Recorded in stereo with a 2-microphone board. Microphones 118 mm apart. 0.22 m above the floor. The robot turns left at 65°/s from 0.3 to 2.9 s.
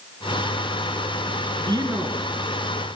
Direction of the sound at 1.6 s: 135° right.